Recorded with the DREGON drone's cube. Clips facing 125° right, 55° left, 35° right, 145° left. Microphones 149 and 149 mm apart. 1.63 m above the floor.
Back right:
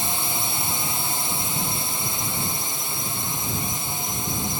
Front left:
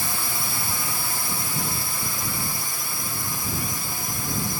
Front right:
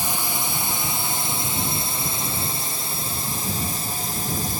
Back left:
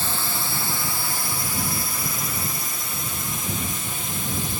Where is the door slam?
I don't hear a door slam.